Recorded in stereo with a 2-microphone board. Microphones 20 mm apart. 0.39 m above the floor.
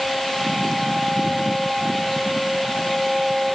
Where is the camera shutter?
No camera shutter in this recording.